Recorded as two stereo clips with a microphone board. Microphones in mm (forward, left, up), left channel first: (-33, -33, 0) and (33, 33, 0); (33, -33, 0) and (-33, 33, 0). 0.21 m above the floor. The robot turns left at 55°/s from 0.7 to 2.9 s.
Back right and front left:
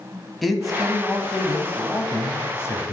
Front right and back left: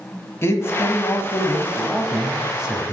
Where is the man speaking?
45° right, 1.1 m; by 2.9 s 165° right, 1.1 m.